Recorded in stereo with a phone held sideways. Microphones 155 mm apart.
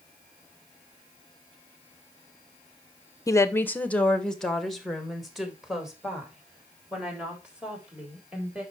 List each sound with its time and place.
3.3 s a woman speaking: 20° left (ahead or behind), 0.7 m; by 8.6 s 5° right (ahead or behind), 4.5 m